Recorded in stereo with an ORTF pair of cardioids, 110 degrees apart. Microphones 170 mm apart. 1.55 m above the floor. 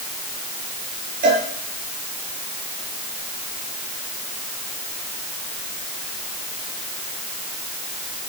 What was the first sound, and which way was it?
A cowbell, 60° right.